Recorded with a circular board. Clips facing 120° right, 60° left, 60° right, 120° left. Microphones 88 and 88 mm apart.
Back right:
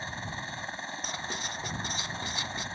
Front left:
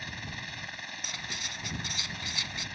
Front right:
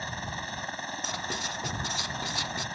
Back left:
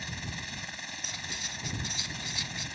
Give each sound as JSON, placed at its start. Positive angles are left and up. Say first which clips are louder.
{"t": 0.0, "sound": "a helicopter", "louder": "back right 4 dB, front right 5 dB", "azimuth_deg": -75}
{"t": 1.0, "sound": "writing", "louder": "back right 4 dB, front right 9 dB", "azimuth_deg": -65}